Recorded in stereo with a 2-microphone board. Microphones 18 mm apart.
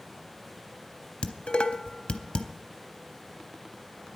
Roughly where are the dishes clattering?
Left.